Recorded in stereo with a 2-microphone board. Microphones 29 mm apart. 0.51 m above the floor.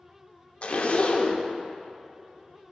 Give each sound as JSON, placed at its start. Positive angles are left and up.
{"t": 0.6, "sound": "a zipper", "side_deg": 45, "distance_m": 0.6}